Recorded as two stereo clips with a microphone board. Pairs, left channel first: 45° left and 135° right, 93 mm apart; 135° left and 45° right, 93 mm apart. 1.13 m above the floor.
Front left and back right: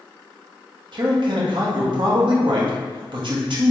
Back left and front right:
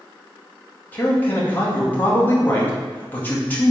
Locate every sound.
0.9 s a man speaking: 155° right, 0.9 m